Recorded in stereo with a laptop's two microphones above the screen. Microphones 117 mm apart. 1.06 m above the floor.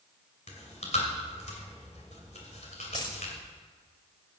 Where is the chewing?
75° left (ahead or behind), 2 m.